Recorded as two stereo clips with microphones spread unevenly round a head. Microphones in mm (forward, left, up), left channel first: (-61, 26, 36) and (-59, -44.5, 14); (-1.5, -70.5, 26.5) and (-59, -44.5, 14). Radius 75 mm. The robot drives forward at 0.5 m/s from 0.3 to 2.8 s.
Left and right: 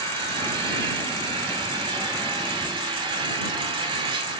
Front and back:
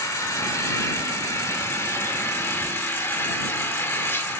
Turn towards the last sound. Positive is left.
turn(degrees=-70)